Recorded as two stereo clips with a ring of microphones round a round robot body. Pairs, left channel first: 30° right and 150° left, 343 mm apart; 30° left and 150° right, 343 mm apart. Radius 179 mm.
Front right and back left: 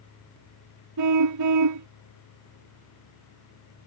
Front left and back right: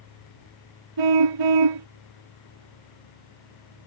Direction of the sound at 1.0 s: 170° right.